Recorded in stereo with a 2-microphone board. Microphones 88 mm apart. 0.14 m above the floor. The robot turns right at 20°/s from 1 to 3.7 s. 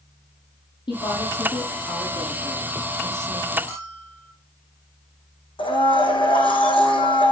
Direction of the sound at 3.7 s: 30° left (ahead or behind).